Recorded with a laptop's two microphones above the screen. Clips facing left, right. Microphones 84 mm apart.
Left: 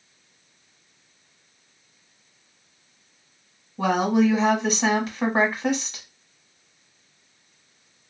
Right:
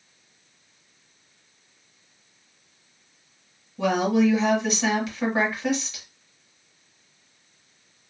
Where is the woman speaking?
35° left (ahead or behind), 1.1 m.